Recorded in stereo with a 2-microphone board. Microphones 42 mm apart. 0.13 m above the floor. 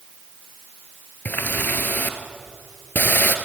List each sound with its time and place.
1.2 s a running tap: 55° left (ahead or behind), 1.8 m